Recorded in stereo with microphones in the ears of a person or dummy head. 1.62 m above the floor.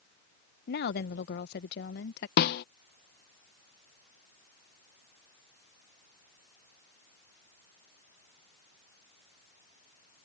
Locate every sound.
0.7 s a woman speaking: 45° left (ahead or behind)
2.4 s a snare drum: 50° left (ahead or behind)